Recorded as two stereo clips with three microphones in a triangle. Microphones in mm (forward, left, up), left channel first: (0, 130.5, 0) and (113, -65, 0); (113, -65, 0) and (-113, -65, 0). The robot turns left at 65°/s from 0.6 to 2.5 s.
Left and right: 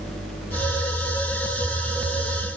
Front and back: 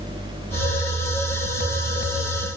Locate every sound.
Only background noise.